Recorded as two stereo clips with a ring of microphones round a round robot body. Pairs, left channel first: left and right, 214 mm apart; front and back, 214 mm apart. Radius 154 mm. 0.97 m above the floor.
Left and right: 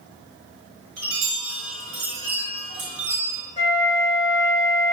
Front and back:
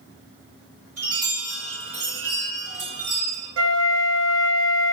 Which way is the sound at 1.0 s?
110° right.